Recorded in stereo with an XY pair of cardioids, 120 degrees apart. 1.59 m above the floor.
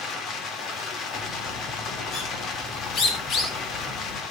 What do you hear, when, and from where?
0.0 s running water: 60° left, 3.5 m
1.1 s a bird: 60° left, 4 m